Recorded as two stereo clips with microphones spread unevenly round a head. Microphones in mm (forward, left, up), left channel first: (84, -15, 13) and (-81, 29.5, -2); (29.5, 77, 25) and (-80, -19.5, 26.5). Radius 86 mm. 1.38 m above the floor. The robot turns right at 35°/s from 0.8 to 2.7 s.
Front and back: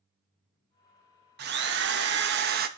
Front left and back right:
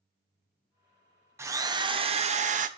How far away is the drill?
About 1.0 m.